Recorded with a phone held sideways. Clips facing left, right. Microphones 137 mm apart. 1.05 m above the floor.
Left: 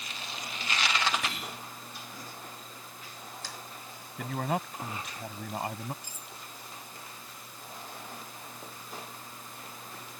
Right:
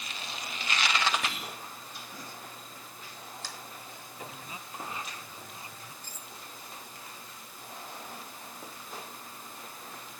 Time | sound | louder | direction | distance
1.2 | whispering | even | centre (ahead or behind) | ?
4.2 | a man speaking | left 14 dB | 65° left (ahead or behind) | ?
6.0 | cutlery clinking | even | 15° left (ahead or behind) | ?